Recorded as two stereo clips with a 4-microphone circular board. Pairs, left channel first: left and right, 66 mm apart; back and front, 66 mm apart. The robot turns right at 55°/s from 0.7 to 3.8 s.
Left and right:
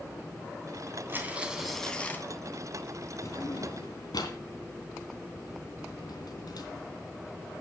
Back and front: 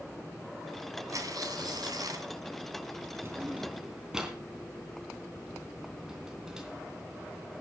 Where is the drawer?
50° left, 3 m; by 7.6 s 80° left, 3 m.